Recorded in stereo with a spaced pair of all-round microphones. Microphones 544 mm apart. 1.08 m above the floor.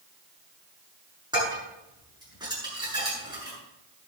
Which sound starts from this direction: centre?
Dishes clattering, at 1.3 s.